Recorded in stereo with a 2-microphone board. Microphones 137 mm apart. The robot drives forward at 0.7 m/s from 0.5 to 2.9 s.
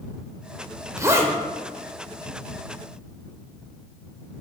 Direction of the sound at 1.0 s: 25° right (ahead or behind).